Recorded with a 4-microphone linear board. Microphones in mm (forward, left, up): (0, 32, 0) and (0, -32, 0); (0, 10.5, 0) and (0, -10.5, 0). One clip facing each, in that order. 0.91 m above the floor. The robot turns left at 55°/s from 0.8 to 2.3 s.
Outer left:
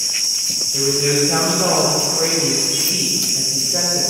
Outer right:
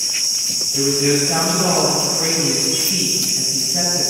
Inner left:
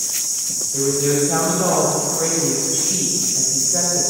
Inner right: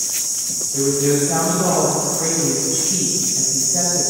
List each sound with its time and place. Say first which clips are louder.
0.7 s a woman speaking: outer right 1 dB, inner right 1 dB; 165° right, 3.5 m; by 4.0 s 115° left, 3.5 m